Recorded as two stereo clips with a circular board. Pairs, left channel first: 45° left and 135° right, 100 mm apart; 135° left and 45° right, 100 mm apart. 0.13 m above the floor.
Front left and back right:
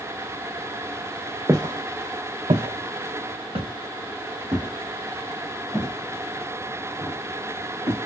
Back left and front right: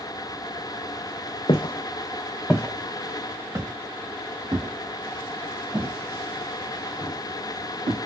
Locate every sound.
1.5 s footsteps: 170° left, 0.8 m; by 8.0 s 75° right, 4 m